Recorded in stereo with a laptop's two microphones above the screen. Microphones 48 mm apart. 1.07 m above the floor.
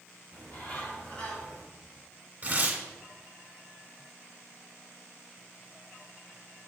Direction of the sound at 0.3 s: 20° left (ahead or behind).